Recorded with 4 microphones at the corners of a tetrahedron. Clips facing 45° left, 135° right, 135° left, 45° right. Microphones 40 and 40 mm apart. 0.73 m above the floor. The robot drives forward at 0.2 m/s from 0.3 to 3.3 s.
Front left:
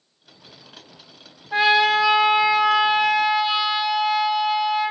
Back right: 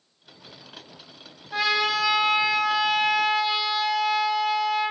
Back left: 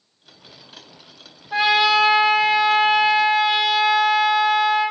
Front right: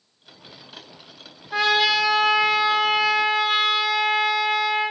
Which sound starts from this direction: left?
A trumpet, at 1.5 s.